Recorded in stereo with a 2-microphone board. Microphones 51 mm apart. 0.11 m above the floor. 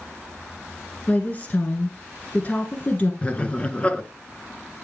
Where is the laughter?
25° left (ahead or behind), 1.1 m.